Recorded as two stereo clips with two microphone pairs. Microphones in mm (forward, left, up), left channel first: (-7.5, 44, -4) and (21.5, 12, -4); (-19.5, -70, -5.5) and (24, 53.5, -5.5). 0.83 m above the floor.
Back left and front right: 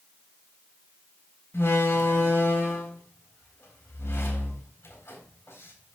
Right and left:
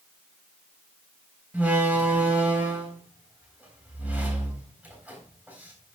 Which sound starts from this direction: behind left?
A door slam, at 1.5 s.